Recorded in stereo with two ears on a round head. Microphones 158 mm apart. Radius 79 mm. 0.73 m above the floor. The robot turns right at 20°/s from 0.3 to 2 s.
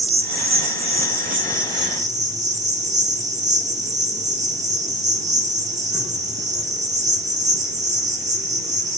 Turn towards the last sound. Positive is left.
turn(degrees=-40)